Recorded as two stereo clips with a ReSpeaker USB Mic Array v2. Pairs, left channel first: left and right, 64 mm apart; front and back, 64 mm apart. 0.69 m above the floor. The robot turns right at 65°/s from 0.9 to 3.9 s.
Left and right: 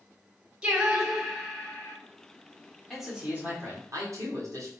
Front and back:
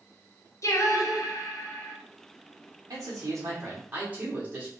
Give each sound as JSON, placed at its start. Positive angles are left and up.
{"t": 0.6, "sound": "singing", "azimuth_deg": -15, "distance_m": 0.6}
{"t": 2.9, "sound": "a man speaking", "azimuth_deg": 175, "distance_m": 1.3}